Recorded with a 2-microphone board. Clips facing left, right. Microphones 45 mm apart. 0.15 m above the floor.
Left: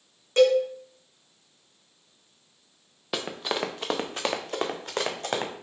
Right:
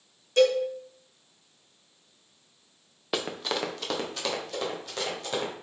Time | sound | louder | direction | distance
0.4 | a cowbell | left 2 dB | 45° left (ahead or behind) | 2.5 m
3.1 | running footsteps | even | centre (ahead or behind) | 0.8 m